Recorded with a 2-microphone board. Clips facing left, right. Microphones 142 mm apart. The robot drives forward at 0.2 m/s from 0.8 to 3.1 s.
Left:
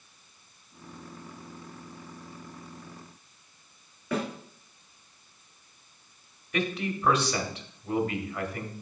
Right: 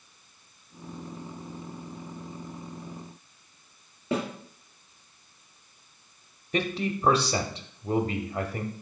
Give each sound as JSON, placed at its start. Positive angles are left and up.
{"t": 4.1, "sound": "a snare drum", "side_deg": -30, "distance_m": 1.9}
{"t": 6.5, "sound": "a man speaking", "side_deg": -35, "distance_m": 0.8}